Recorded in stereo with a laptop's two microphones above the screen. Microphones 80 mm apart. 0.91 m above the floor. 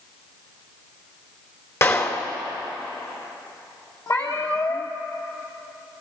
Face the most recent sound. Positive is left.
turn(degrees=40)  # may be behind; listen again after turning